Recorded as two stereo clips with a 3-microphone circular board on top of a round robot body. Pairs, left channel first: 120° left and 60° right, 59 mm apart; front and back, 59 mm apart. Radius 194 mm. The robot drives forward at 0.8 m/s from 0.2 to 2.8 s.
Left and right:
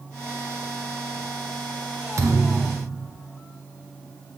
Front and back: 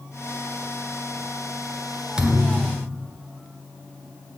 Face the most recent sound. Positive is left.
turn(degrees=-120)